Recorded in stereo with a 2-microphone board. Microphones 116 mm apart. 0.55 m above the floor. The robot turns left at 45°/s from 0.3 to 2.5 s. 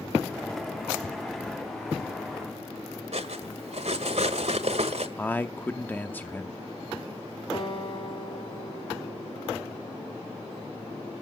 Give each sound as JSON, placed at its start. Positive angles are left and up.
{"t": 3.1, "sound": "cutlery clinking", "side_deg": -70, "distance_m": 1.6}
{"t": 5.2, "sound": "a man speaking", "side_deg": 15, "distance_m": 0.7}
{"t": 7.5, "sound": "a guitar", "side_deg": 55, "distance_m": 4.5}